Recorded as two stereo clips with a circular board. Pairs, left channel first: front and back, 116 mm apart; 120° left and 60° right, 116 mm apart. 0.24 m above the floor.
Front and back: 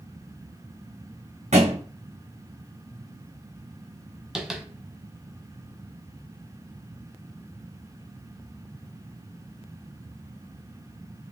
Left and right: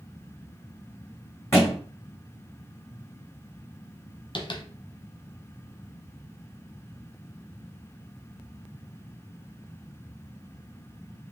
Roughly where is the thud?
Behind.